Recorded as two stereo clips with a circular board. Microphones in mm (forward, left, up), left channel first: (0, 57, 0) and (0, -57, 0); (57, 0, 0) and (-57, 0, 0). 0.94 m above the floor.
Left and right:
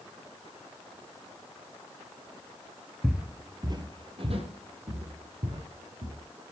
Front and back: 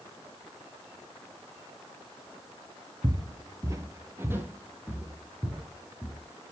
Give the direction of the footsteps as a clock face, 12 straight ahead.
6 o'clock.